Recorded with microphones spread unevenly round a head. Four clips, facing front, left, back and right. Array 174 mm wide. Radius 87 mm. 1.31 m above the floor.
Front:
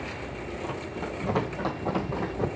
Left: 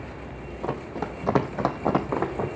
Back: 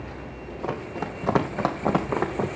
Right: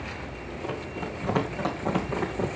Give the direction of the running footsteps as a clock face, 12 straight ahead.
8 o'clock.